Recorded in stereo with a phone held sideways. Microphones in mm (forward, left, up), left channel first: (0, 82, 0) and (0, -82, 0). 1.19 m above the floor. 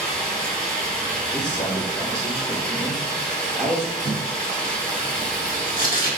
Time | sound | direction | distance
0.0 | running water | 5° left (ahead or behind) | 0.9 m
1.3 | a man speaking | 80° left | 1.6 m
4.0 | tape being pulled | 60° left (ahead or behind) | 1.8 m